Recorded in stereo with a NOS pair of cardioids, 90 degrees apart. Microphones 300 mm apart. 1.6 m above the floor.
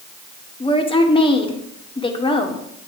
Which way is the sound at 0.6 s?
15° left.